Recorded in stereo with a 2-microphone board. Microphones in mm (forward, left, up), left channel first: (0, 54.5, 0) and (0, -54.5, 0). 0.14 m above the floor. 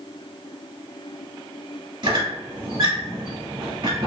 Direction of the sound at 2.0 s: 45° right (ahead or behind).